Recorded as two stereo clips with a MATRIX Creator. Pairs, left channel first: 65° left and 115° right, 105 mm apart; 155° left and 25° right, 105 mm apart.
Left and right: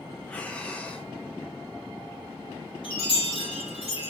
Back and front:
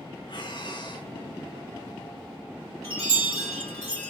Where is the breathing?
140° left, 1.0 m.